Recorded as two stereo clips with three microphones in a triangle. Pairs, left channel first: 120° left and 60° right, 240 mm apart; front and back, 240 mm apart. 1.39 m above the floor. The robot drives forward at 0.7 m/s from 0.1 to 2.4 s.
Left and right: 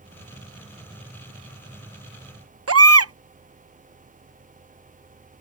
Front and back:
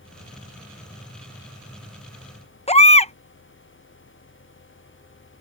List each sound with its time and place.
2.7 s a baby crying: 65° right